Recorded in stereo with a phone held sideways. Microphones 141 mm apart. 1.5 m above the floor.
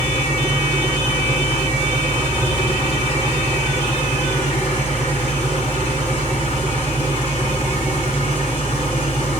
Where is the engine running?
55° left (ahead or behind), 4.5 m.